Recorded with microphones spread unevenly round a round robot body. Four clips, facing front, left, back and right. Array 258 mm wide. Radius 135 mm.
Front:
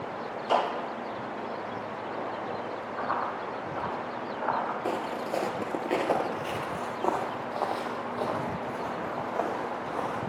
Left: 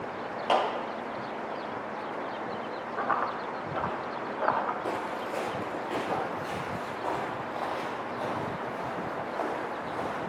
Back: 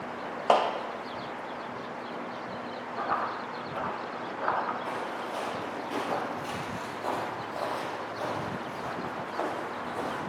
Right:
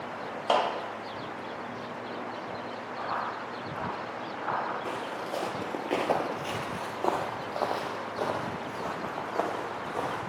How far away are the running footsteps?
About 2.5 m.